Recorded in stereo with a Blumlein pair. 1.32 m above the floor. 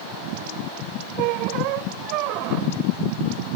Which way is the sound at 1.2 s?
40° right.